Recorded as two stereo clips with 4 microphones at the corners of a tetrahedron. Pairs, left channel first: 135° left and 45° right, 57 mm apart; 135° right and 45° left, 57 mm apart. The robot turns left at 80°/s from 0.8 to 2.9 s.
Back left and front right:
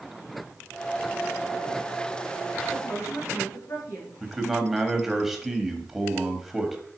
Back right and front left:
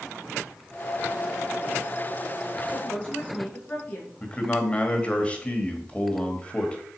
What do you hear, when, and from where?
2.7 s a woman speaking: 175° left, 3.5 m; by 4.1 s 160° left, 3.5 m
4.2 s a man speaking: 120° right, 1.4 m